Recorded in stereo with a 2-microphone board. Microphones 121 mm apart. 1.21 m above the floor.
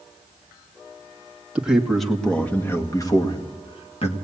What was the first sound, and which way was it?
A man speaking, 10° right (ahead or behind).